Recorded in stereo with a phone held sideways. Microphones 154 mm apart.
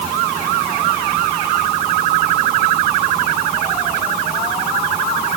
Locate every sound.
Only background noise.